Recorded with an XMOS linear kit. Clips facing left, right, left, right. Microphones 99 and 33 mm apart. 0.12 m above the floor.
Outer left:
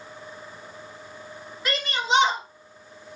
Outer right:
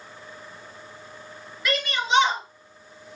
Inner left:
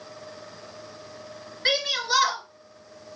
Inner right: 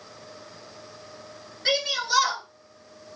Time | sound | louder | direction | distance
1.6 | a shout | outer right 1 dB, inner left 1 dB | 40° left (ahead or behind) | 1.7 m